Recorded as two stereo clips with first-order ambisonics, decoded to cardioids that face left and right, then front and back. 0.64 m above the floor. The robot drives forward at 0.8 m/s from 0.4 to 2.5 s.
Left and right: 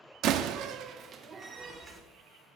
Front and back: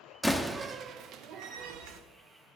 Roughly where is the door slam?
Right.